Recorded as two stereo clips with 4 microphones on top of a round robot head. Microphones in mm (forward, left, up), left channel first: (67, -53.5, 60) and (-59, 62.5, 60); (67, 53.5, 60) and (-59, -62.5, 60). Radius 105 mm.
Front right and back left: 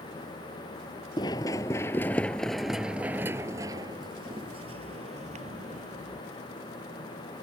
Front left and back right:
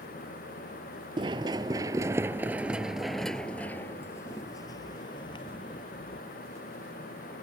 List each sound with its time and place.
1.2 s running footsteps: 95° right; by 6.2 s 100° left